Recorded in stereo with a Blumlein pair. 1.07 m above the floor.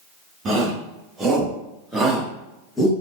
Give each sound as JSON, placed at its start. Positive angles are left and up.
{"t": 0.5, "sound": "a shout", "azimuth_deg": -25, "distance_m": 2.5}